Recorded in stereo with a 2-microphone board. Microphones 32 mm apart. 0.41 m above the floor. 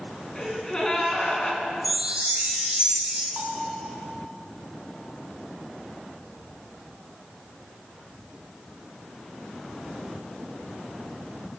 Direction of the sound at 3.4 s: 50° right (ahead or behind).